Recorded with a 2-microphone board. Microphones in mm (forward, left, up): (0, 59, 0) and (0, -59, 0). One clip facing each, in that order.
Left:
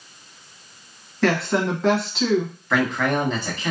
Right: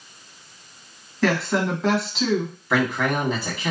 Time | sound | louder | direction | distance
1.2 | a woman speaking | left 1 dB | centre (ahead or behind) | 1.2 m
2.7 | a man speaking | left 1 dB | 10° right (ahead or behind) | 1.3 m